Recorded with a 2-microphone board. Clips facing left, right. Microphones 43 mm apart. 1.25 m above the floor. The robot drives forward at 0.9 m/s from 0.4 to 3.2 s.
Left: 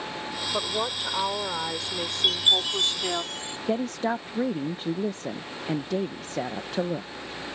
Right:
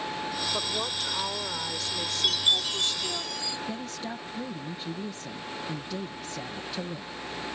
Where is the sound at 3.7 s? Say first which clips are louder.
Left 9 dB; 55° left (ahead or behind).